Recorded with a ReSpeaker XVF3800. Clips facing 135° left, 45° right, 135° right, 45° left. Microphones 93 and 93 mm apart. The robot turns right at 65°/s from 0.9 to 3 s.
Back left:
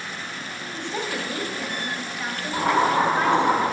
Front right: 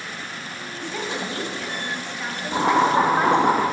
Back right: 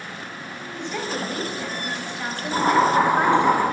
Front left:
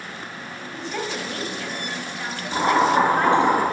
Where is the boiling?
50° right, 2.5 m; by 3.6 s 20° right, 2.5 m.